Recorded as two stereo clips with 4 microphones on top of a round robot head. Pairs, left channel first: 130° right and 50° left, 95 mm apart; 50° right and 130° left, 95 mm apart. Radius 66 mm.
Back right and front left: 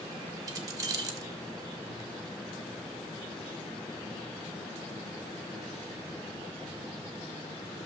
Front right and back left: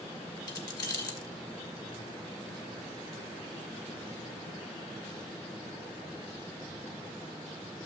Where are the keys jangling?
Straight ahead, 1.9 m.